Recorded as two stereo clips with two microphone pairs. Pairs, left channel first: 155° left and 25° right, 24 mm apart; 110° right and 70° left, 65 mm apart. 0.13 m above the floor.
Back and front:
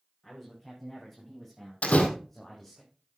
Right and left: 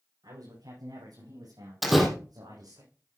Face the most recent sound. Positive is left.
turn(degrees=160)